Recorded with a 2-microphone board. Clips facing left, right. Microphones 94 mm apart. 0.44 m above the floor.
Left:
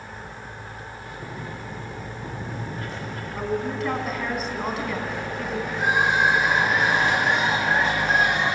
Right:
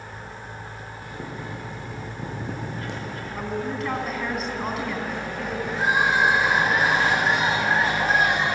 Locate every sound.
1.0 s boiling: 70° right (ahead or behind), 8.5 m
3.3 s a woman speaking: centre (ahead or behind), 3 m
5.7 s crying: 35° right (ahead or behind), 6.5 m